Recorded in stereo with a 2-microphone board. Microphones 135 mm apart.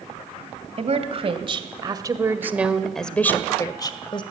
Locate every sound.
0.8 s a woman speaking: 50° right (ahead or behind), 2 m; by 4.2 s 40° left (ahead or behind), 1.8 m